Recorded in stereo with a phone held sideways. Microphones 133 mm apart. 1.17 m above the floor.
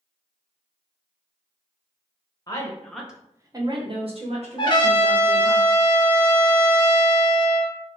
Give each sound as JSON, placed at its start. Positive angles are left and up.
{"t": 2.5, "sound": "a woman speaking", "side_deg": 30, "distance_m": 0.7}
{"t": 4.6, "sound": "a trumpet", "side_deg": 35, "distance_m": 0.6}